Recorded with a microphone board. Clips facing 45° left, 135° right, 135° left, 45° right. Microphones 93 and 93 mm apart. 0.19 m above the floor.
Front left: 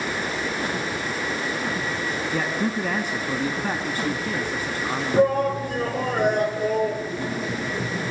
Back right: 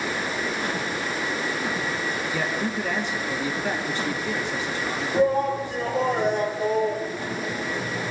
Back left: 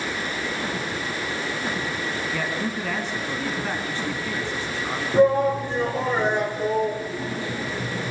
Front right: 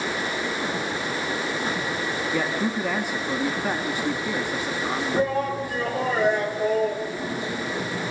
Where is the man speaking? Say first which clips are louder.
Front left 4 dB, front right 5 dB; 30° left, 1.8 m.